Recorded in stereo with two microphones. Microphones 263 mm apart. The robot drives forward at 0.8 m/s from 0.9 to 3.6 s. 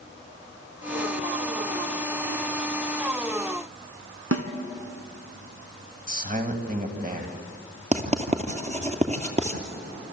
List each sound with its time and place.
4.3 s a snare drum: 60° right (ahead or behind), 2 m
6.1 s a man speaking: 35° right (ahead or behind), 3 m
7.9 s writing: 25° right (ahead or behind), 2.5 m